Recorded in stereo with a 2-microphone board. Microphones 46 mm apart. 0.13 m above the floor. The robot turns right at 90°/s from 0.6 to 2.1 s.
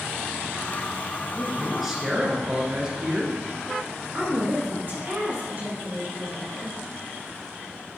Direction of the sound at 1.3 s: 135° left.